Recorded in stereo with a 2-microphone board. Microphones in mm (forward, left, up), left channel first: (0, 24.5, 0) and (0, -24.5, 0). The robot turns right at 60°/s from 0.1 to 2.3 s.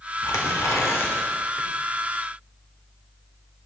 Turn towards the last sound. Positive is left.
turn(degrees=-150)